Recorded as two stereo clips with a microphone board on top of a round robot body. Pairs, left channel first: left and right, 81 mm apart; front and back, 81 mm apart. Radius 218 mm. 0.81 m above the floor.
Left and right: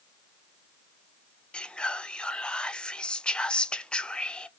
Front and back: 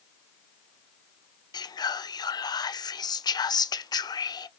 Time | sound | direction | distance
1.5 | whispering | 15° left | 0.5 m